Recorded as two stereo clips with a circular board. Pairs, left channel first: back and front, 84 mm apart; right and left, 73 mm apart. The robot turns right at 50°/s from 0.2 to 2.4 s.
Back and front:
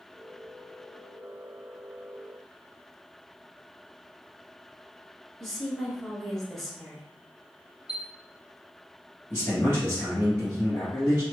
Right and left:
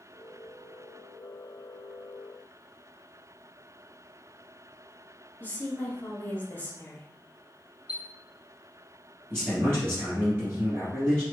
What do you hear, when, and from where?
5.4 s a woman speaking: 95° right, 1.1 m
7.9 s a chime: 155° left, 1.8 m
9.3 s a man speaking: 130° left, 2 m